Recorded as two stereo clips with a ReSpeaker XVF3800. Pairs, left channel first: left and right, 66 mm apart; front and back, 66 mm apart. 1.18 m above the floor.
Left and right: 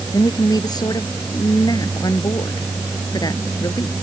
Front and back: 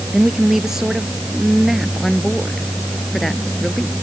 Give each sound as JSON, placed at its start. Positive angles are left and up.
{"t": 0.1, "sound": "a woman speaking", "azimuth_deg": 100}